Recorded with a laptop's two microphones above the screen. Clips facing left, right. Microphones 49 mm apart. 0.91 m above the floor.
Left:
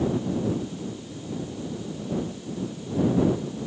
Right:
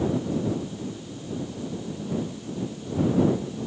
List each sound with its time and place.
Only background noise.